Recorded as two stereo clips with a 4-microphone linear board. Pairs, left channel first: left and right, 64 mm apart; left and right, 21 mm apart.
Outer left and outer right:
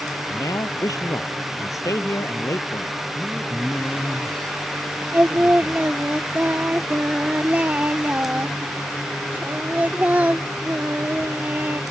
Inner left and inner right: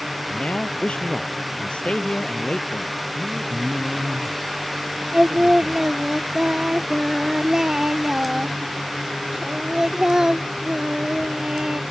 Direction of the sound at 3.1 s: 15° left (ahead or behind).